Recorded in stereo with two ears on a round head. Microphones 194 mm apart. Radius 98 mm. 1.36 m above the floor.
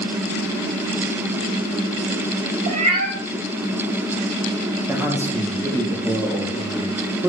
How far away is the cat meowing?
About 3 m.